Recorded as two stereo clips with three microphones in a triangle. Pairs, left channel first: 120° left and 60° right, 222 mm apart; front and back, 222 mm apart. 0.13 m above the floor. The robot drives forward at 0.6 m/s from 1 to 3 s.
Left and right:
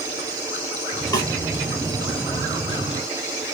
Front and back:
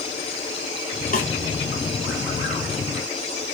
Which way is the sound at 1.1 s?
50° left.